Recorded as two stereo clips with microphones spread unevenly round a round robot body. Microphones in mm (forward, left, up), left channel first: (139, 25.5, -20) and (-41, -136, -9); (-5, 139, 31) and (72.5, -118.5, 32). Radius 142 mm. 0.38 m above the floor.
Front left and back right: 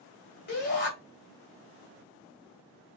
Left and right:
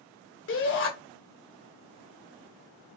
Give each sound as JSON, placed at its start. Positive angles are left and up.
{"t": 0.5, "sound": "a shout", "azimuth_deg": 80, "distance_m": 1.8}